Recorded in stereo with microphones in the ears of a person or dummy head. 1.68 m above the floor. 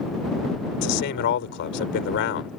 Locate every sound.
0.8 s a man speaking: 55° left (ahead or behind)